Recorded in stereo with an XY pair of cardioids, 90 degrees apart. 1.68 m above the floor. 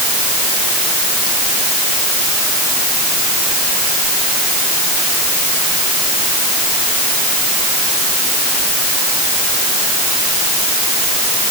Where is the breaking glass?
I don't hear breaking glass.